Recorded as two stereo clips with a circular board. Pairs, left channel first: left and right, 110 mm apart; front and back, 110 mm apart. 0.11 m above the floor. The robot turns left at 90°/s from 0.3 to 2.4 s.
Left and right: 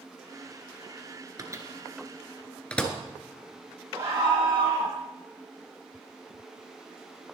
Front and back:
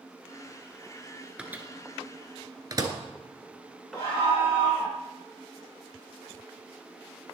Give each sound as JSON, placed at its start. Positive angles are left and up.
{"t": 1.4, "sound": "a microwave", "azimuth_deg": -105, "distance_m": 1.4}
{"t": 3.9, "sound": "a scream", "azimuth_deg": -45, "distance_m": 4.5}